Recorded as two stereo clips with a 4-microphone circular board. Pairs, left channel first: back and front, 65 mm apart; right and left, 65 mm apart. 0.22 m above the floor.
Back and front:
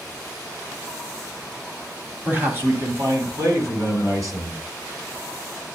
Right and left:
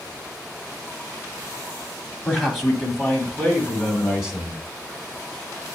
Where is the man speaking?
Straight ahead, 1.4 m; by 4.6 s 10° left, 2.5 m.